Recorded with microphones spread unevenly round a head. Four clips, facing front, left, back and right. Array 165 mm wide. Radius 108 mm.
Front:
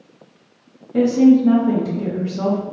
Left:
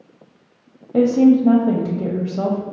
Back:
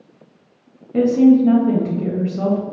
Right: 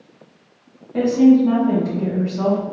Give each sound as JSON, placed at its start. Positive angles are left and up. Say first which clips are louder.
{"t": 0.9, "sound": "a woman speaking", "louder": "even, even", "azimuth_deg": 115, "distance_m": 0.6}